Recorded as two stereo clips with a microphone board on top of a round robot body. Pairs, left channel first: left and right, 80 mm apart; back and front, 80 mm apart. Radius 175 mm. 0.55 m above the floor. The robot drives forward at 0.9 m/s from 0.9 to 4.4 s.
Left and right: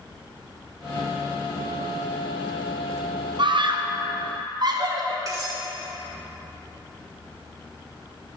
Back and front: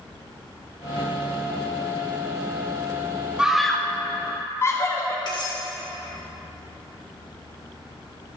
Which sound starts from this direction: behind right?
Cutlery clinking, at 5.3 s.